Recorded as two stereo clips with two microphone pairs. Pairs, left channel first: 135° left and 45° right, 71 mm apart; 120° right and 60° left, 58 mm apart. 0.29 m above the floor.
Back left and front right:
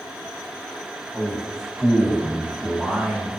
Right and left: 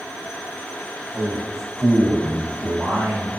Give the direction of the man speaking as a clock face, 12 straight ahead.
10 o'clock.